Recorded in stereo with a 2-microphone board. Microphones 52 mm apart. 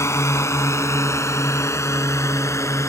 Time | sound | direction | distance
0.0 | a drone | 60° left (ahead or behind) | ?